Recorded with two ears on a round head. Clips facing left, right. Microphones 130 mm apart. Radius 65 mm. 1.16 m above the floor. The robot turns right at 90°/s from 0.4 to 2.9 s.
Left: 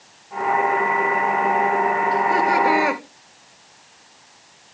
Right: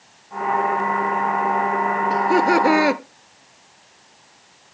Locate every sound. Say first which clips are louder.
2.1 s laughter: right 5 dB; 115° right, 1.0 m; by 3.0 s 45° right, 1.0 m